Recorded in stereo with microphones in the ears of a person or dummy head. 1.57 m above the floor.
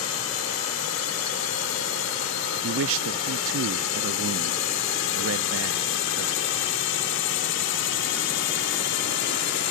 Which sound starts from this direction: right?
A man speaking, at 2.6 s.